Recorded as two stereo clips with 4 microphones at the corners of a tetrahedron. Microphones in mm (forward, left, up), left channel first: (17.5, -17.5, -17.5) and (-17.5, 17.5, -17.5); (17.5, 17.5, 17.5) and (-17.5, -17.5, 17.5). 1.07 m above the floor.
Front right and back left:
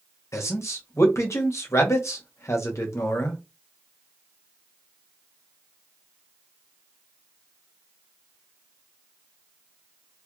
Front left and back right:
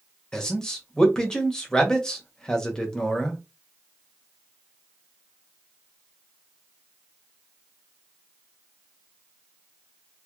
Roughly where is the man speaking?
Ahead right.